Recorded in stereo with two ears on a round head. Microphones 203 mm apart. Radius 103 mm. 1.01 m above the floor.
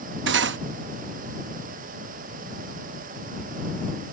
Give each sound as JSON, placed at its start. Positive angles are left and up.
{"t": 0.3, "sound": "cutlery clinking", "side_deg": -55}